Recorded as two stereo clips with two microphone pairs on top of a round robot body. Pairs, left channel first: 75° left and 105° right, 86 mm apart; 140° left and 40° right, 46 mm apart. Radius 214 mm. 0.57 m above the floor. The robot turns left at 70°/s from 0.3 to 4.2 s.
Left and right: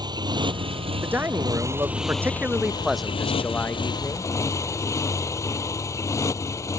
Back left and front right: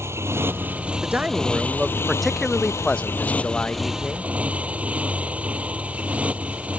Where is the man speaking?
60° right; by 4.3 s 80° left.